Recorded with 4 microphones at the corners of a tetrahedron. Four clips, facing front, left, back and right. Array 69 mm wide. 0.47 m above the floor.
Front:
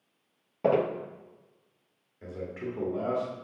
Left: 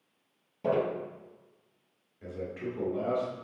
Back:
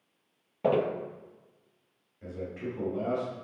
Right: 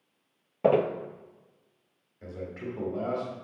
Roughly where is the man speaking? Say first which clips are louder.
Left 1 dB, even; ahead right.